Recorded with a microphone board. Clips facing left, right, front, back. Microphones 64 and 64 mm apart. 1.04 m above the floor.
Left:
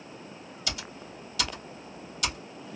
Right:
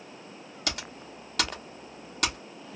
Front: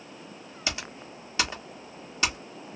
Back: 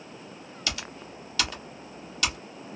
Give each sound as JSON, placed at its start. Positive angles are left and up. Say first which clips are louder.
{"t": 0.7, "sound": "typing on a keyboard", "louder": "right 2 dB, front 1 dB", "azimuth_deg": -60, "distance_m": 1.0}